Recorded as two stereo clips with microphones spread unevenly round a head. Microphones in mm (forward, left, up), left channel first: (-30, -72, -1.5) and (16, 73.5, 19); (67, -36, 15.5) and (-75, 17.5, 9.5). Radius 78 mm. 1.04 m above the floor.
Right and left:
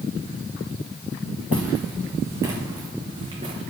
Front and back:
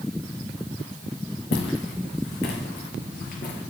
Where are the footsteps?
10° right, 3.5 m; by 3.6 s 20° left, 3 m.